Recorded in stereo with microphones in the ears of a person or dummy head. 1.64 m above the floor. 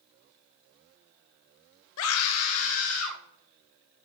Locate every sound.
2.0 s a scream: 75° left (ahead or behind), 0.6 m; by 3.2 s 80° left, 2 m